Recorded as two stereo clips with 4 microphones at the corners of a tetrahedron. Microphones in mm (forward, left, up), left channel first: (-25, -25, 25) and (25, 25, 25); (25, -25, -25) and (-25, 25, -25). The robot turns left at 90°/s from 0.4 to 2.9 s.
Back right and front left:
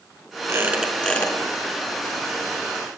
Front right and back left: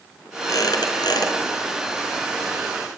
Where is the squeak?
5° right, 5 m; by 1.4 s 85° right, 5 m.